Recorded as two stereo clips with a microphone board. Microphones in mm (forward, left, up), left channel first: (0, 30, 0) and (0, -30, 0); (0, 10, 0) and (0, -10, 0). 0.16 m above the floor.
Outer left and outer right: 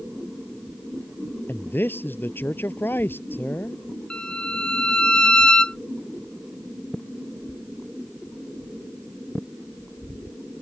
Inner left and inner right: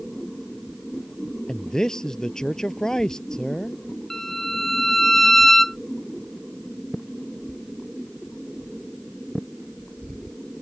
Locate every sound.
1.5 s a man speaking: 35° left (ahead or behind)
4.1 s a violin: 15° left (ahead or behind)